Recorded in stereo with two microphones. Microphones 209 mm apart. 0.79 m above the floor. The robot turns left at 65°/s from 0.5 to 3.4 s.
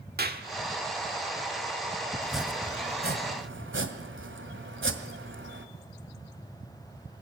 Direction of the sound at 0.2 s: 50° right (ahead or behind).